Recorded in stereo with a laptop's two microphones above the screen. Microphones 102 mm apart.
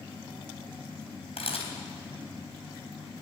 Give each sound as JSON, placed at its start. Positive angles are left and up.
{"t": 1.4, "sound": "a camera shutter", "side_deg": 85, "distance_m": 3.5}